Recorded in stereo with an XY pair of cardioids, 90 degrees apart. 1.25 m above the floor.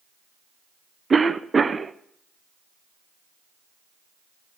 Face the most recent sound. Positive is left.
turn(degrees=-30)